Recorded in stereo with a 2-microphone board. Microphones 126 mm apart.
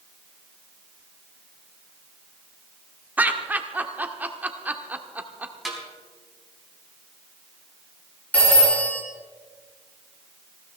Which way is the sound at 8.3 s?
10° left (ahead or behind).